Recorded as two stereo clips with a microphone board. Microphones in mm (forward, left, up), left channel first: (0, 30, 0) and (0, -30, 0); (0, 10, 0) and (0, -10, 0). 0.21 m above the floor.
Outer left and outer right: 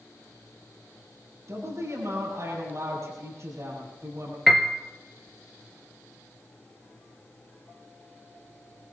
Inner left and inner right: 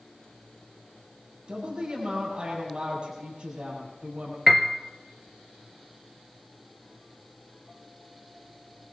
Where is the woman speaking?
60° right (ahead or behind), 6.5 m.